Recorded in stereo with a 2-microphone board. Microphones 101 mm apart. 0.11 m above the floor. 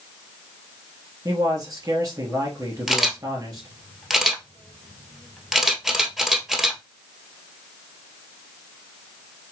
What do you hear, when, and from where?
1.2 s a man speaking: 40° right (ahead or behind), 2.5 m
2.9 s a camera shutter: 5° right (ahead or behind), 1.2 m